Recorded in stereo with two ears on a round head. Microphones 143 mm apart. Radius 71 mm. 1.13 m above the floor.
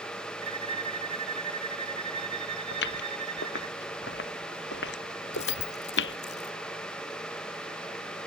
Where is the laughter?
No laughter in this recording.